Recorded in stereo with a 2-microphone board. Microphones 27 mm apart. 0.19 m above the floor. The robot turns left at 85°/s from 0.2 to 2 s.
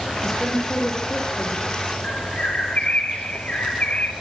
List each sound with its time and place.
0.2 s a woman speaking: 165° right, 9 m; by 1.6 s 75° left, 9 m
2.0 s a bird: 50° left (ahead or behind), 2 m